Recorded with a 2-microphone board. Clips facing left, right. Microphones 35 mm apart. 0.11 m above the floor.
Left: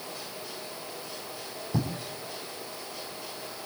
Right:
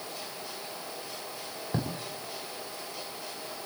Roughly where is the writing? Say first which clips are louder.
Left 2 dB; right.